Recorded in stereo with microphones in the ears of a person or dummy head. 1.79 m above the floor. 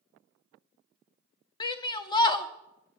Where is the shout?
25° left (ahead or behind), 0.7 m.